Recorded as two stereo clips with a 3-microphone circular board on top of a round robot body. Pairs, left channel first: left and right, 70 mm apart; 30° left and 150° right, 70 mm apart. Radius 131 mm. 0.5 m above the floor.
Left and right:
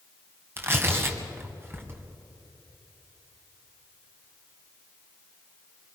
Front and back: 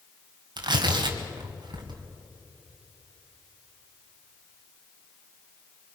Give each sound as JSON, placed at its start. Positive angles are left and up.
{"t": 0.6, "sound": "tearing paper", "azimuth_deg": -150, "distance_m": 2.5}